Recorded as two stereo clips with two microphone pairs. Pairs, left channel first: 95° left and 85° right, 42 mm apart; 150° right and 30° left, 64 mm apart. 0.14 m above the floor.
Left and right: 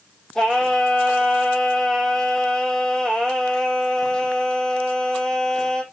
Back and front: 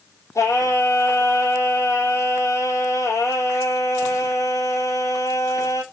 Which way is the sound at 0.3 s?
170° left.